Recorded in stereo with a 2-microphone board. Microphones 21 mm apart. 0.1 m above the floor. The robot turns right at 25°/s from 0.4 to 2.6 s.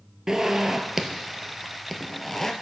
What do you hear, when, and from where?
0.3 s a zipper: 30° right (ahead or behind), 0.6 m; by 2.5 s 15° left (ahead or behind), 0.6 m